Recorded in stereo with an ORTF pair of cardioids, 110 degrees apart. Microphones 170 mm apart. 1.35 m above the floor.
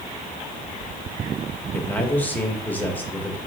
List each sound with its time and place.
1.7 s a man speaking: 10° left, 1.4 m